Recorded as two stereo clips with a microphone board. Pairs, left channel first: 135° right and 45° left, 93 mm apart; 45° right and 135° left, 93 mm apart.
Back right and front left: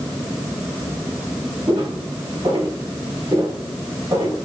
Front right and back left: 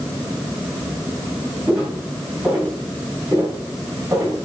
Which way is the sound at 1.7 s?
55° left.